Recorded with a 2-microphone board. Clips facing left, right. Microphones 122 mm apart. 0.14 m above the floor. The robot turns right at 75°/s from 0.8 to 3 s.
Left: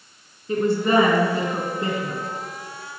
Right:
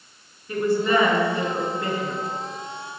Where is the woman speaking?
55° left, 1.5 m; by 2.2 s 160° left, 1.5 m.